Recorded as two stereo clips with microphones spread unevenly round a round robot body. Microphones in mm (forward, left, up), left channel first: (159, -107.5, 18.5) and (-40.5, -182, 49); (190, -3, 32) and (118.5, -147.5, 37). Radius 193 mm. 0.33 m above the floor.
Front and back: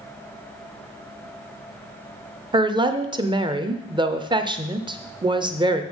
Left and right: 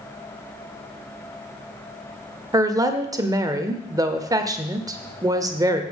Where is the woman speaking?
110° right, 0.8 m.